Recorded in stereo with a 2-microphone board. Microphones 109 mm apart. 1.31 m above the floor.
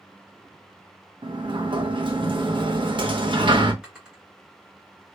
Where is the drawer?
10° right (ahead or behind), 1.9 m.